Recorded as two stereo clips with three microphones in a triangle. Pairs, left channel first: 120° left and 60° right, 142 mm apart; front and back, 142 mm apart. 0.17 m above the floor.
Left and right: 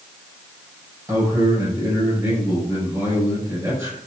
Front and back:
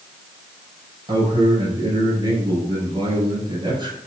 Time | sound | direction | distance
1.1 | a man speaking | 125° right | 4 m